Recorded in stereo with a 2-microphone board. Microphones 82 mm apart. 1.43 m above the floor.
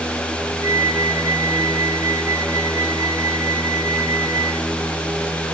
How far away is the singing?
I don't hear singing.